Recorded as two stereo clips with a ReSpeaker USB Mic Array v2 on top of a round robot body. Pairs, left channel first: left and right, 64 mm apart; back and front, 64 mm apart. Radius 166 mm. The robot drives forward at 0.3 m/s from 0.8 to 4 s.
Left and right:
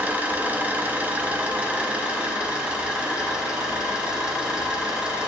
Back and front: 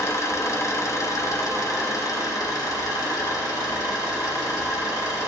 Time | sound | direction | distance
0.0 | an engine running | 150° right | 1.2 m